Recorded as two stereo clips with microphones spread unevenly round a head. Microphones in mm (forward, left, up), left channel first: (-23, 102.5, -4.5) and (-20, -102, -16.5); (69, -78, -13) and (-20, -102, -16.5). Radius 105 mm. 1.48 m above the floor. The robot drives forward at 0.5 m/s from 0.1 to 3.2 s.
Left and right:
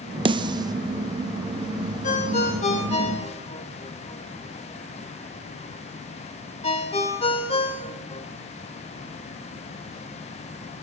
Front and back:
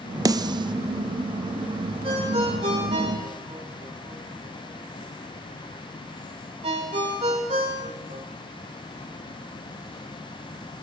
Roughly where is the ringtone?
Behind left.